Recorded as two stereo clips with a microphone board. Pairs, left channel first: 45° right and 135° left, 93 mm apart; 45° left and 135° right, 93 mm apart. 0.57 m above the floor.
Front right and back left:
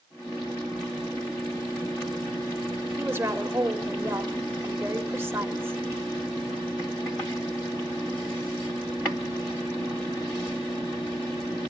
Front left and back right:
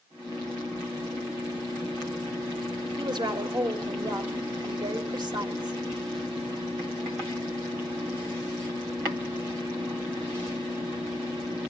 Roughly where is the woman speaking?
Behind.